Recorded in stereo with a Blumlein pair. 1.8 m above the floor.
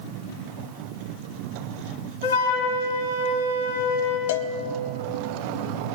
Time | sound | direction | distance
2.2 | a flute | 65° left | 3 m
4.3 | a cowbell | 55° left | 0.9 m